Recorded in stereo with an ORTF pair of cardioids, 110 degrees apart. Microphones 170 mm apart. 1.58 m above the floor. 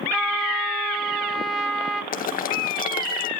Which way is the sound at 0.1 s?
Straight ahead.